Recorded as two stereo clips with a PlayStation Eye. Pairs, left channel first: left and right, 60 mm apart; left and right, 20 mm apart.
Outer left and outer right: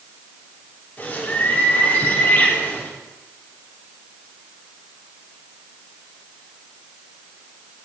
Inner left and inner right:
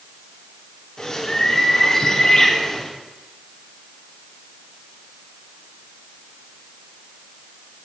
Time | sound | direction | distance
1.0 | a bird | 30° left (ahead or behind) | 3 m